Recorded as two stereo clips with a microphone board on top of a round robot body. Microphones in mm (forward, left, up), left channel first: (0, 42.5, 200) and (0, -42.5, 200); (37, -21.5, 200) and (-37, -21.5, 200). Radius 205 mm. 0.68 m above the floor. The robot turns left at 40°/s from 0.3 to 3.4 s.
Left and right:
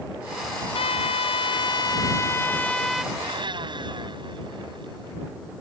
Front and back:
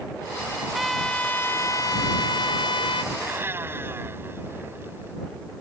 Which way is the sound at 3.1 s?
110° right.